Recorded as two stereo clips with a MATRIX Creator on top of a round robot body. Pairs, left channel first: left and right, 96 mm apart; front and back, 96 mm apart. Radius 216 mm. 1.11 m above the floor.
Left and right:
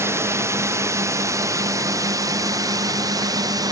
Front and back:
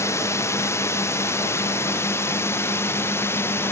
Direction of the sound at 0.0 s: 45° right.